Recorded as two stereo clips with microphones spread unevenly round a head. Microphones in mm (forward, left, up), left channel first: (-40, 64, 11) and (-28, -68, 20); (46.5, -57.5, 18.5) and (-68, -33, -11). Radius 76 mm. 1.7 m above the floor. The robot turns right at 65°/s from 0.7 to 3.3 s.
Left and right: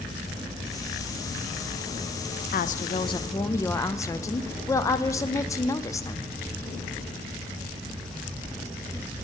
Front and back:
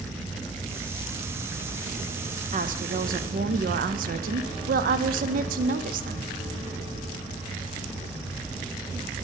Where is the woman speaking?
115° left, 0.5 m; by 6.3 s 165° left, 0.5 m.